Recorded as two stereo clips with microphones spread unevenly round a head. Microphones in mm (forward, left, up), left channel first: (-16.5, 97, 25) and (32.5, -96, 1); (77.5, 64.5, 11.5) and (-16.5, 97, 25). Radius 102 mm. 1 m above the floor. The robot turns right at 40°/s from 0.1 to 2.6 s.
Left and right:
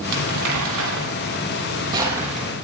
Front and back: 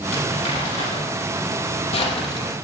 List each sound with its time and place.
0.1 s crumpling: 80° right, 6 m; by 2.5 s 15° left, 6 m